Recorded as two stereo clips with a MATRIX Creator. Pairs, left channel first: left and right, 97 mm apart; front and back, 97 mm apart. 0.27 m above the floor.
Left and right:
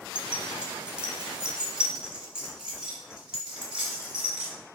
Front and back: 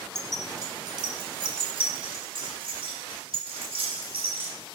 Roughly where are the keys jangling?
Behind right.